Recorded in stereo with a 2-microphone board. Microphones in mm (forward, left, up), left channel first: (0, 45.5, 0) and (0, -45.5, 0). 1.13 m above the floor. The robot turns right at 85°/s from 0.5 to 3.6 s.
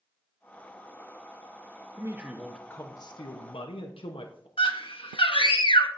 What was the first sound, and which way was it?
A man speaking, 40° right.